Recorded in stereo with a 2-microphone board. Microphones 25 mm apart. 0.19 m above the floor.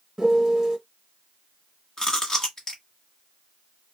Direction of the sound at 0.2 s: 20° right (ahead or behind).